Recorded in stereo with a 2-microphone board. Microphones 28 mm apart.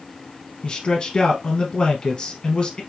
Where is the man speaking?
20° left (ahead or behind), 1.5 m.